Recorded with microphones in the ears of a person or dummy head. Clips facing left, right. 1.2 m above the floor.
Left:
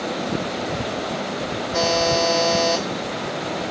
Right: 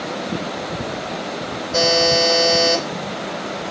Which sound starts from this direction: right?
A buzzer, at 1.7 s.